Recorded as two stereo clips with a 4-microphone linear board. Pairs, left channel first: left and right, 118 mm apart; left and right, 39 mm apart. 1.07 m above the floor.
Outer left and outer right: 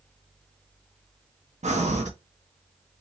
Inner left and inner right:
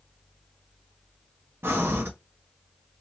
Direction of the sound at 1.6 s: 80° right.